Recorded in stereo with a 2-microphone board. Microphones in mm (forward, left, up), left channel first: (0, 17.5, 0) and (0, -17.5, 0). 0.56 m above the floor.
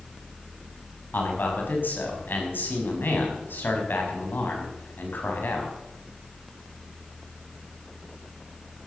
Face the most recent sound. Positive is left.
turn(degrees=65)  # may be behind; listen again after turning